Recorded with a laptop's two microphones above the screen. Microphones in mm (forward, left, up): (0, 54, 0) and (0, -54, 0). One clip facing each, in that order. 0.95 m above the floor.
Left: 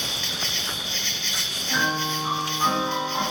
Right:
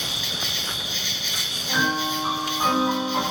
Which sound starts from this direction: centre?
An insect, at 0.0 s.